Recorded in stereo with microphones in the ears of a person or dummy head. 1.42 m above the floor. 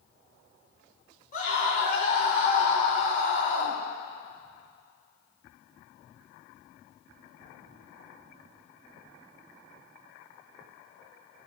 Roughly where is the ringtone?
I don't hear a ringtone.